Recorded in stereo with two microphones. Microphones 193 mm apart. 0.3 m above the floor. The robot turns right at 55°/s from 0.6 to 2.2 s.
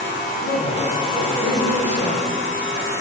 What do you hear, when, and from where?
0.4 s a man speaking: 100° left, 2.5 m; by 2.9 s 170° right, 2.5 m